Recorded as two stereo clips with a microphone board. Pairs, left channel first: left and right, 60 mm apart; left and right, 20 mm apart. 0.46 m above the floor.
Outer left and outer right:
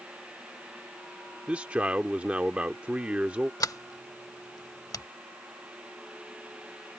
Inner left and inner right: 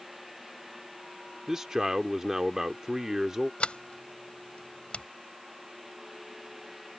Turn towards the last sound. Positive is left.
turn(degrees=75)  # may be behind; listen again after turning